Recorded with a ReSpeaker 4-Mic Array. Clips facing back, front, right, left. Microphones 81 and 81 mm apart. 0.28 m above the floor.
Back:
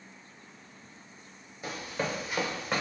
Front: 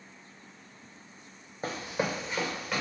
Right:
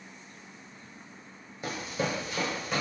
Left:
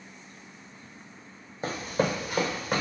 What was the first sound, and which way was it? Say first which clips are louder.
Running footsteps: front 2 dB, left 5 dB; 40° left.